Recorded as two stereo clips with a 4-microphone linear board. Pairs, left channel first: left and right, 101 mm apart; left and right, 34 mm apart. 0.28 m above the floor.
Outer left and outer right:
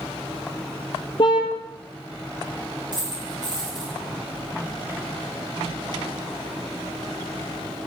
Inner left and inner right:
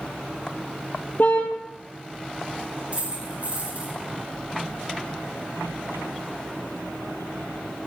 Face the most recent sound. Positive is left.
turn(degrees=-50)  # may be behind; listen again after turning